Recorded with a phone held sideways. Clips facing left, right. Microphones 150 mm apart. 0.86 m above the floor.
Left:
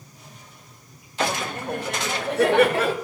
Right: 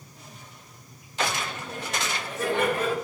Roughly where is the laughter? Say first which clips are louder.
Left 4 dB; left.